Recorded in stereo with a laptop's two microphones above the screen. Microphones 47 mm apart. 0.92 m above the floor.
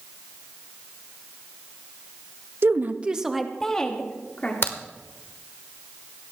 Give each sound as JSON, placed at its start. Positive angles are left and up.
{"t": 2.6, "sound": "a woman speaking", "side_deg": -55, "distance_m": 0.8}
{"t": 4.6, "sound": "a crack", "side_deg": 55, "distance_m": 1.3}